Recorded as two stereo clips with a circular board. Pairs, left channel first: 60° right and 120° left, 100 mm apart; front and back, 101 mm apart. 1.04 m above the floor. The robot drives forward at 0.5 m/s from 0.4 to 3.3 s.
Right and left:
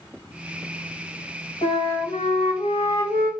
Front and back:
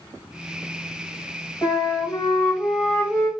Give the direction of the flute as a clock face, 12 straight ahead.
2 o'clock.